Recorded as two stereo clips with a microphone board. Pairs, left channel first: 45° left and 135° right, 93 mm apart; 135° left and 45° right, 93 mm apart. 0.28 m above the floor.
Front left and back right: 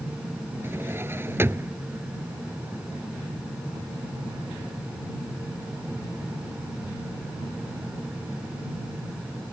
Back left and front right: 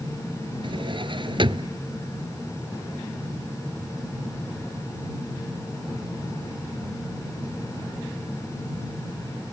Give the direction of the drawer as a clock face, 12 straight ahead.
2 o'clock.